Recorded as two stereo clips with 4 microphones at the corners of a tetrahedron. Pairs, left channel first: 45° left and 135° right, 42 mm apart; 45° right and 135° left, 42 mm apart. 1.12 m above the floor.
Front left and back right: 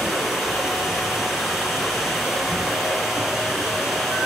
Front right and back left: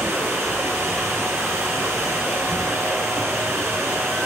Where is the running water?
135° left, 5 m.